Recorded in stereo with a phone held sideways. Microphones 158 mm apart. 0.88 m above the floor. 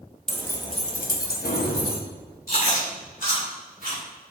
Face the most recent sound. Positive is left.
turn(degrees=65)  # may be behind; listen again after turning